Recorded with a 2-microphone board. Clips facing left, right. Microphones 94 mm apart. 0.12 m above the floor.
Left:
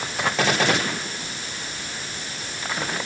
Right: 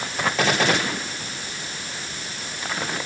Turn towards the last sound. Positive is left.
No sound to turn to.